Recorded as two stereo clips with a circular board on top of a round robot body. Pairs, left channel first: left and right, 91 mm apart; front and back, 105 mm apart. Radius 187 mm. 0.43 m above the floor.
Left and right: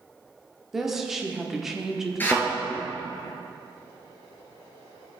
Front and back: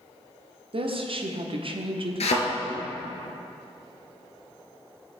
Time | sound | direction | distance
0.7 | a woman speaking | 175° right | 1.3 m
2.2 | a thud | 20° left | 1.5 m